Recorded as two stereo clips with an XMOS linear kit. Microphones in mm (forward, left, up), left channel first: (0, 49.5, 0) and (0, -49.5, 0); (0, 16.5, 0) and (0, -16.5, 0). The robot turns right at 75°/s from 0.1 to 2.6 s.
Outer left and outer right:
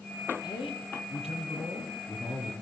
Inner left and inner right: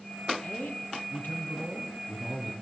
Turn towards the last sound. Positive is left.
turn(degrees=-150)